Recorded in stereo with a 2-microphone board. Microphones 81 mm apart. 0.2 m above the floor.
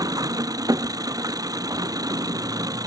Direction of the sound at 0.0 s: 50° right (ahead or behind).